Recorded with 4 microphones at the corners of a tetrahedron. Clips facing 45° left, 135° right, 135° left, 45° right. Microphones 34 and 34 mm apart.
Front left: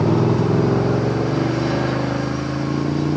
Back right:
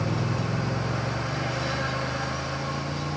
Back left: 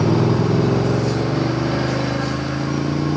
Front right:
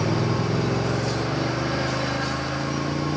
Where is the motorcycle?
70° left; by 3.2 s 60° left.